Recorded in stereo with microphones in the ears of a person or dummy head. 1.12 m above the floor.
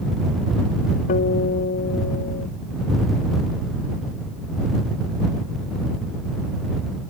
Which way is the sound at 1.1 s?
50° left (ahead or behind).